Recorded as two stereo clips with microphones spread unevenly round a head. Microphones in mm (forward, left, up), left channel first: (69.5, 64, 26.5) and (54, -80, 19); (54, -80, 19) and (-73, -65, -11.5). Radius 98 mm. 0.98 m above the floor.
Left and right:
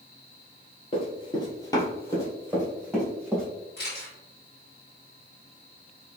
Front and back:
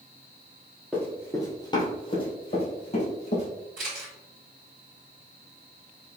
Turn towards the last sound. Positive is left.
turn(degrees=125)